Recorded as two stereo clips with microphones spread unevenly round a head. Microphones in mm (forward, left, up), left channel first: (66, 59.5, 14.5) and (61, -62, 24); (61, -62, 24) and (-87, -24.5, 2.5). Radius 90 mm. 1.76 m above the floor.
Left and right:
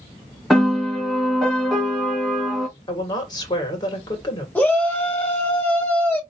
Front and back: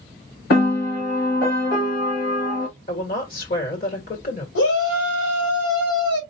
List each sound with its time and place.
0.5 s a piano: straight ahead, 2 m
2.9 s a woman speaking: 30° left, 3 m
4.5 s a shout: 10° left, 1.8 m